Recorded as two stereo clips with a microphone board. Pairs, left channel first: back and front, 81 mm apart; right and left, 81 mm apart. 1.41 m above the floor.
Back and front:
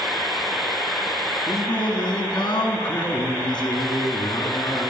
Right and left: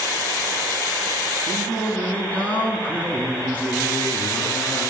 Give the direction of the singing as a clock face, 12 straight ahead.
5 o'clock.